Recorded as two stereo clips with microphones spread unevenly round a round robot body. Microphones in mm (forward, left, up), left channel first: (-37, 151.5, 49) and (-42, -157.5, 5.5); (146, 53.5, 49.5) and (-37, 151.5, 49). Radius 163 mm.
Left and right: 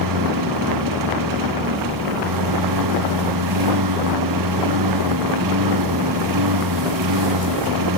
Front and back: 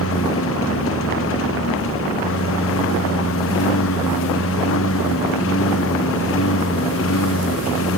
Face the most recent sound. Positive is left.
turn(degrees=-65)